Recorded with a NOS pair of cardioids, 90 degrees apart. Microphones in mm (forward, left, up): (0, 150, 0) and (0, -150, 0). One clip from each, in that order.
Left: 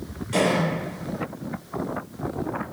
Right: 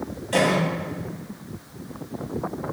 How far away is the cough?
About 2.0 m.